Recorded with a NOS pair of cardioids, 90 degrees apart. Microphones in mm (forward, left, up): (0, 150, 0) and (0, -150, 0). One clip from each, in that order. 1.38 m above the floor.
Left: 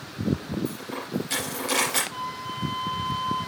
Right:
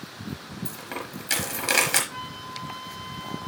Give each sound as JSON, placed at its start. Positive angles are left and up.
{"t": 0.7, "sound": "a dropped coin", "azimuth_deg": -60, "distance_m": 4.0}
{"t": 2.1, "sound": "a flute", "azimuth_deg": -40, "distance_m": 8.5}